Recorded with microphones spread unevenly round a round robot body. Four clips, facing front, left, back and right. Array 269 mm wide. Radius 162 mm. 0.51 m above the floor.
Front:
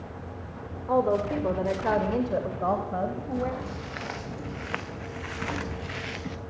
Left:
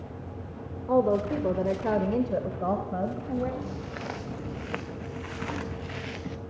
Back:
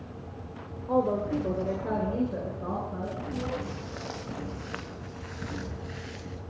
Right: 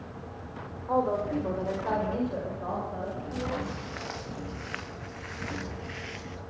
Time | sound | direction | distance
0.9 | a woman speaking | 95° left | 2 m
3.6 | footsteps | 120° left | 2.5 m